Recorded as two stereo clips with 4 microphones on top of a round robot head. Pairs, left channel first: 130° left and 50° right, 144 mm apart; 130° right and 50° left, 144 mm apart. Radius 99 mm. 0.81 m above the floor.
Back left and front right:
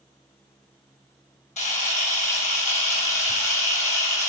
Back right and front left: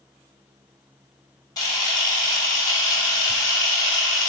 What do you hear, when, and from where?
1.6 s a camera shutter: 165° left, 3 m